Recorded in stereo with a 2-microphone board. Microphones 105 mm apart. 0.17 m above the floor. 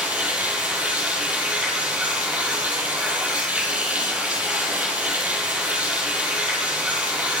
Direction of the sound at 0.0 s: 15° right (ahead or behind).